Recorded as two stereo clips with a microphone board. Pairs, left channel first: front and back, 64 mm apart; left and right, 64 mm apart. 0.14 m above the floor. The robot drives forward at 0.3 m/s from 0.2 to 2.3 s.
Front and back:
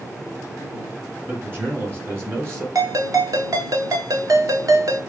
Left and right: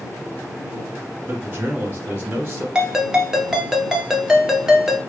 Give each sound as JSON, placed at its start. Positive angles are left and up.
{"t": 1.3, "sound": "a man speaking", "azimuth_deg": -135, "distance_m": 1.9}
{"t": 2.8, "sound": "a ringtone", "azimuth_deg": -170, "distance_m": 1.0}